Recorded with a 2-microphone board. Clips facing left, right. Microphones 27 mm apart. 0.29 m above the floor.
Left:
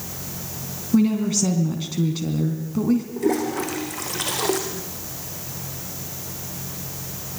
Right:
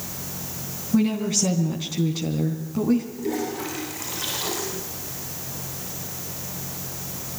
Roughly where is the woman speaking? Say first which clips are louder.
Left 2 dB; centre.